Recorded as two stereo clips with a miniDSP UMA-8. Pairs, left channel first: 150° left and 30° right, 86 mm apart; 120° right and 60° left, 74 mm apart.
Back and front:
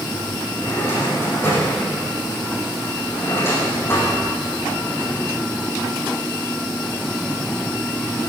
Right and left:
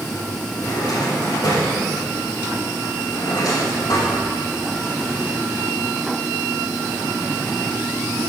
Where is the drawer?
150° right, 8 m.